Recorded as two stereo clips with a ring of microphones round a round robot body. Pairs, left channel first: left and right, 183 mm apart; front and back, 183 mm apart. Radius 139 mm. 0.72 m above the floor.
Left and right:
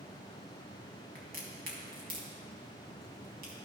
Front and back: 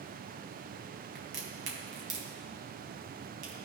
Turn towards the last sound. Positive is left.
turn(degrees=-140)